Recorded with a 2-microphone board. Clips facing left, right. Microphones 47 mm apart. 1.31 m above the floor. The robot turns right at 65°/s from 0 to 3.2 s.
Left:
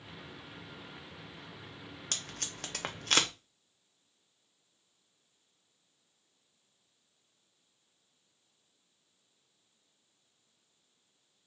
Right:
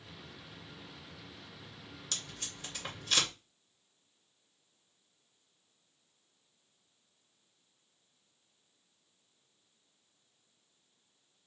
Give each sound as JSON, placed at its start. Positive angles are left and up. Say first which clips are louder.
{"t": 2.1, "sound": "tape being pulled", "louder": "left 2 dB", "side_deg": 50, "distance_m": 0.9}